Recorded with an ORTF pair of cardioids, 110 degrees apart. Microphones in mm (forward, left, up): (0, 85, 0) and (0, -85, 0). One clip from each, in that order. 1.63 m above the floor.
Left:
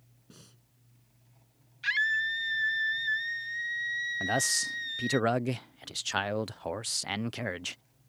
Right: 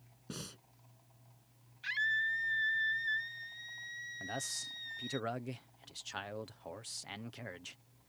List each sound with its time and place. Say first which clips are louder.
0.3 s breathing: right 10 dB; 60° right
1.8 s a scream: left 6 dB; 45° left
4.2 s a man speaking: left 12 dB; 55° left